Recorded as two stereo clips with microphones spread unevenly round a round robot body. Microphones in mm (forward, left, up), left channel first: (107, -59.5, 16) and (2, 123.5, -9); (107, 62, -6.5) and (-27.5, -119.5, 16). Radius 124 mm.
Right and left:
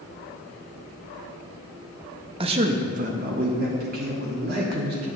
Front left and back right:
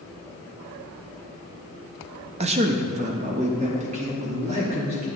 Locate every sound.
2.4 s a man speaking: 175° left, 0.6 m; by 5.1 s 170° left, 2.5 m